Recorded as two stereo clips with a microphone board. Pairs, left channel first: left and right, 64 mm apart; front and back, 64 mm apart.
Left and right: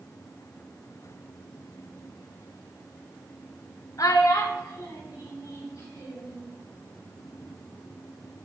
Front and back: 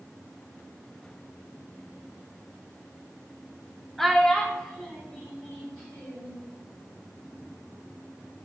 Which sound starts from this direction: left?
A child speaking, at 4.0 s.